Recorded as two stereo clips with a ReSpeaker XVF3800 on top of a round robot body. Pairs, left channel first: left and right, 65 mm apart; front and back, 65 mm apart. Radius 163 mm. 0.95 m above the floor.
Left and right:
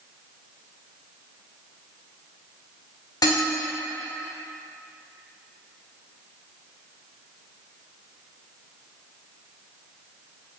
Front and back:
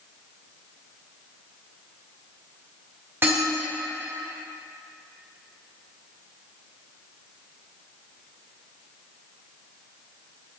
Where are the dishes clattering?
120° left, 1.8 m.